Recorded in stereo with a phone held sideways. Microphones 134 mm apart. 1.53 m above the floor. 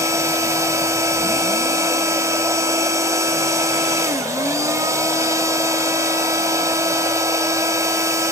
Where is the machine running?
25° right (ahead or behind), 1.6 m.